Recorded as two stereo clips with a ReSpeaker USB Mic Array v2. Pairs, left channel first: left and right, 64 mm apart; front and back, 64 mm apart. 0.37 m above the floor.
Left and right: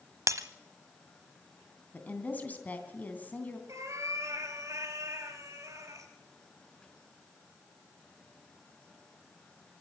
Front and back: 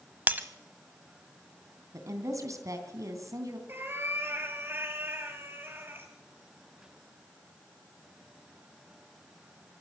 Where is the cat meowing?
125° right, 2.5 m.